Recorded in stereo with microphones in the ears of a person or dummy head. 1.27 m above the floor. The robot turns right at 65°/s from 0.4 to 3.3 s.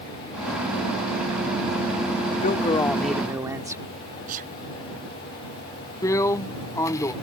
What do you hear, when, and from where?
2.4 s a man speaking: 135° left; by 3.8 s 165° right
4.3 s a sneeze: 45° right (ahead or behind)
6.0 s a drill: 15° left (ahead or behind)